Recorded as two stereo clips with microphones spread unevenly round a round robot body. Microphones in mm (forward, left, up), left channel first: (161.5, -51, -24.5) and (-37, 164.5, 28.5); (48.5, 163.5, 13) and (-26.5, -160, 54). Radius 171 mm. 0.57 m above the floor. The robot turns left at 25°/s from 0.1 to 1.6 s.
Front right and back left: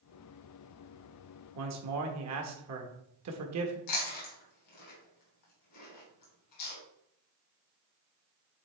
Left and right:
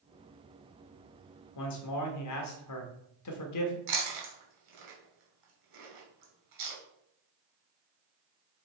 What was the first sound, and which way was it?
A man speaking, 100° left.